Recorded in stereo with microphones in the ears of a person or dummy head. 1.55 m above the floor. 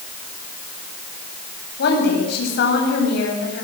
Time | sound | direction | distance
1.8 | a woman speaking | 60° left (ahead or behind) | 9 m